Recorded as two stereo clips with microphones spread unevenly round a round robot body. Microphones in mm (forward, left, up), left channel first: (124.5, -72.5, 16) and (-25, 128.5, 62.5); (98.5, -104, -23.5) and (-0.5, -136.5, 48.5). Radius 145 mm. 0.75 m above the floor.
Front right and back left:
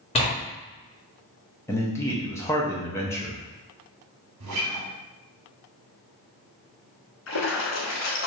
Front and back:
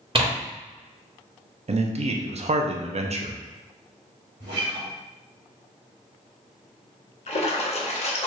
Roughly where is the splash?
Ahead.